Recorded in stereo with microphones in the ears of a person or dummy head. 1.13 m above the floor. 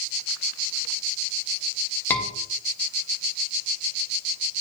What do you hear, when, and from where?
2.1 s a scream: 10° left (ahead or behind), 1.9 m